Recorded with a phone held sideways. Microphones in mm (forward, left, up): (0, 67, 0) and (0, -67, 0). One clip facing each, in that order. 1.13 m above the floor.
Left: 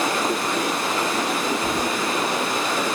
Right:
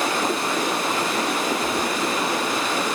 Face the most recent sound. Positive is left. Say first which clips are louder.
# even
turn(degrees=40)  # may be behind; listen again after turning